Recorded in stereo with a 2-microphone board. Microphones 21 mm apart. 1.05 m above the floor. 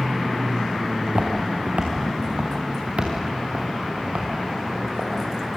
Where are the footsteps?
70° right (ahead or behind), 3.5 m; by 5.1 s 65° right (ahead or behind), 6 m.